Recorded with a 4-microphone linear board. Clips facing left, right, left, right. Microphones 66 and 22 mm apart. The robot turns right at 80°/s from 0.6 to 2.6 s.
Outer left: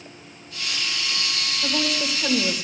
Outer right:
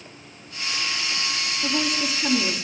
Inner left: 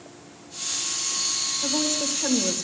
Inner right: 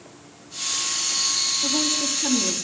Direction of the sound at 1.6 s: 20° left.